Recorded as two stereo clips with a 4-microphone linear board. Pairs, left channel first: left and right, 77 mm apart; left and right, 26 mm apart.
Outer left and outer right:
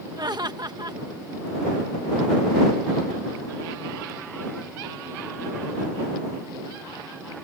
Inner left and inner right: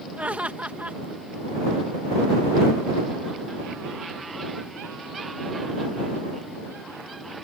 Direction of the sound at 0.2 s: 65° right (ahead or behind).